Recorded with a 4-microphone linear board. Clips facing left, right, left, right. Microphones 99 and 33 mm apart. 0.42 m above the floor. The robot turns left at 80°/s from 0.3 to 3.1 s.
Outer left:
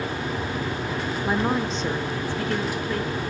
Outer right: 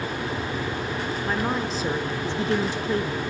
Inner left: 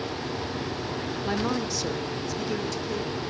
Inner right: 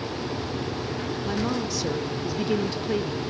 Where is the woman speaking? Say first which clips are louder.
Outer left 3 dB, even; 15° left (ahead or behind), 0.8 m; by 3.2 s 25° right (ahead or behind), 0.8 m.